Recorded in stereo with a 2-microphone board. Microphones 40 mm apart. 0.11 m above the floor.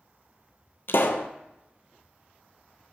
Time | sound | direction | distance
0.9 | a pop | 70° left (ahead or behind) | 0.6 m